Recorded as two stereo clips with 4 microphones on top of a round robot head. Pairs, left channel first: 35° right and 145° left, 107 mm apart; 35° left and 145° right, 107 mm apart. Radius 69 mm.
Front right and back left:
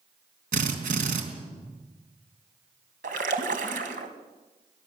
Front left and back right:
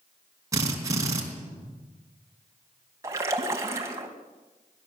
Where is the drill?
150° left, 4 m.